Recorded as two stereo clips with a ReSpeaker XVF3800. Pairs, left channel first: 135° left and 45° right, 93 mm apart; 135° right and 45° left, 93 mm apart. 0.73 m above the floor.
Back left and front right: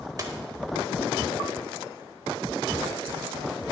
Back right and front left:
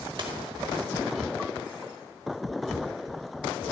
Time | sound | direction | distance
0.2 | a dropped coin | 10° left | 1.1 m